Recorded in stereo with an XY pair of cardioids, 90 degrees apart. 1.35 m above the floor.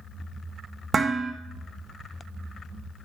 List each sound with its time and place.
0.9 s dishes clattering: 35° right, 1.0 m